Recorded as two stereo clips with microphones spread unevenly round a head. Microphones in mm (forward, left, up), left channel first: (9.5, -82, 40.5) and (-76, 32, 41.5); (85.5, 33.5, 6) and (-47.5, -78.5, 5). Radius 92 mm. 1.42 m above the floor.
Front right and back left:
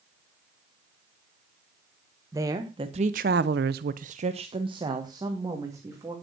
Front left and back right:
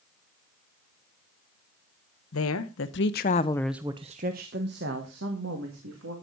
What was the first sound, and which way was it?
A woman speaking, 55° left.